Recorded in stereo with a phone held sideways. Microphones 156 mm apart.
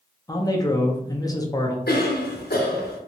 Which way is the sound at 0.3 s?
25° left (ahead or behind).